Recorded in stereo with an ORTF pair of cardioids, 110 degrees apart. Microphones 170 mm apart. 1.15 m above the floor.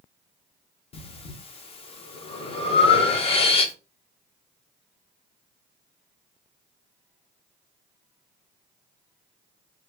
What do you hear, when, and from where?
0.9 s breathing: 35° left, 0.7 m